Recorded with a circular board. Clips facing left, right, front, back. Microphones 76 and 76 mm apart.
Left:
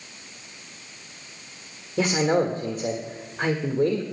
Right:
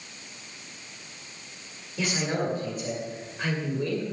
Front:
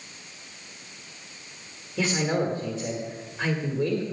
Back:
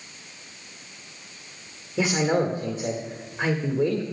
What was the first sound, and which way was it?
A man speaking, 115° left.